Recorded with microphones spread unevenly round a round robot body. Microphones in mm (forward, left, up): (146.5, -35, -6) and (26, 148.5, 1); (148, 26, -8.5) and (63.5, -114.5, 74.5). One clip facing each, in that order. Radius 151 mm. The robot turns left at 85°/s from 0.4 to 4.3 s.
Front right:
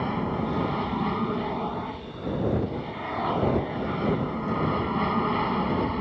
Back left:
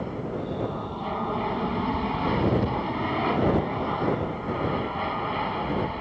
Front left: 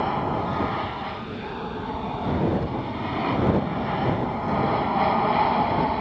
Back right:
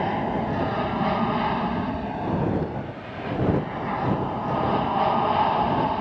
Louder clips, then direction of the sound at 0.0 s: Front right 3 dB, back right 1 dB; 55° right.